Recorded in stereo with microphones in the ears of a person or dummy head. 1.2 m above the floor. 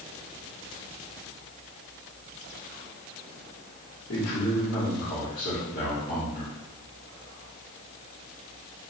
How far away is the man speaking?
About 1.5 m.